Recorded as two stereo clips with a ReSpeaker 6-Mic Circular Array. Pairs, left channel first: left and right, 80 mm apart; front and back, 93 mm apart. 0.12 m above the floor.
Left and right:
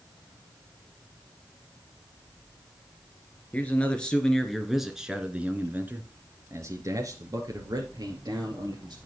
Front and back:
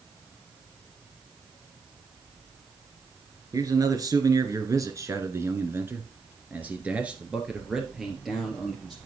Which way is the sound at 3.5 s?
155° left.